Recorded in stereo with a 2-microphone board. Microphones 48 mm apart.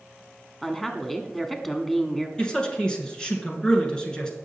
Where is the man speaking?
20° left (ahead or behind), 2 m.